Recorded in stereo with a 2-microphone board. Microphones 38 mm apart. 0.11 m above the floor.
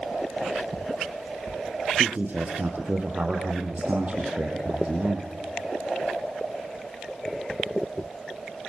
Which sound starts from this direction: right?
A man speaking, at 2.0 s.